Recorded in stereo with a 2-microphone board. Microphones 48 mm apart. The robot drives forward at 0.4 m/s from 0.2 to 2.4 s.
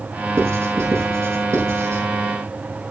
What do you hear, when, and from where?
0.4 s writing: 70° right (ahead or behind), 7 m; by 2.0 s 65° right (ahead or behind), 7 m